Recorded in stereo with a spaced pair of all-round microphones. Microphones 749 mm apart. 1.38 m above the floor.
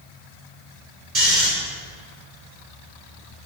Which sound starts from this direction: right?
Snoring, at 1.1 s.